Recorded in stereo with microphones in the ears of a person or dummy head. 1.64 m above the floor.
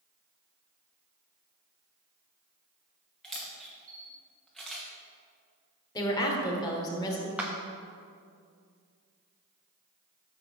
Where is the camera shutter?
Centre (ahead or behind), 1.3 m.